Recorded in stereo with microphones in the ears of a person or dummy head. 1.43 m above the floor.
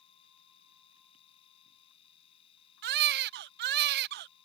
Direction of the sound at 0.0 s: 35° left (ahead or behind).